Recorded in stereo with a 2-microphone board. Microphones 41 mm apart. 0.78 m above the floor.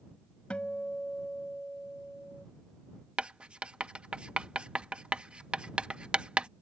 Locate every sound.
0.5 s a guitar: 30° left (ahead or behind)
3.2 s writing: 25° right (ahead or behind)